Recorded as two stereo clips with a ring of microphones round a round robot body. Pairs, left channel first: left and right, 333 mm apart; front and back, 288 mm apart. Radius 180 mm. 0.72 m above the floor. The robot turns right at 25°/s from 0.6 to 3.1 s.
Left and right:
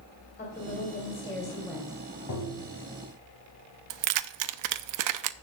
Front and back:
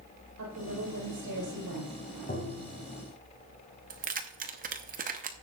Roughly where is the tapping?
Ahead left.